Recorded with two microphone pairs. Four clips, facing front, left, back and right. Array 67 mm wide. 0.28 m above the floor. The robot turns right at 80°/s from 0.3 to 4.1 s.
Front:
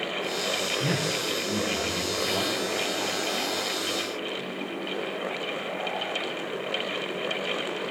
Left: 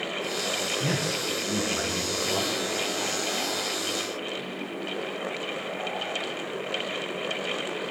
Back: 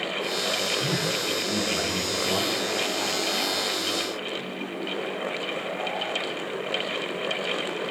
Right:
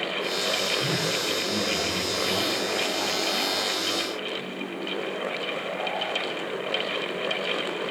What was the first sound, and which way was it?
A man speaking, 50° left.